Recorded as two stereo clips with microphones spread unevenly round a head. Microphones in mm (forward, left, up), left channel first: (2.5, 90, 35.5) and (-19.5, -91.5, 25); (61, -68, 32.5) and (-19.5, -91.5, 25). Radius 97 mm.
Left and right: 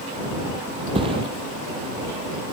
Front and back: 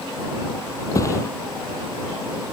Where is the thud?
30° right.